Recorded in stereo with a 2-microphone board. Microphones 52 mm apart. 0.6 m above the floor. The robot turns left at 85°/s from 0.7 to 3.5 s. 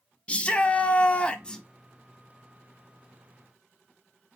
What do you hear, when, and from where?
0.3 s a shout: 20° left (ahead or behind), 0.6 m; by 1.6 s 10° left (ahead or behind), 0.6 m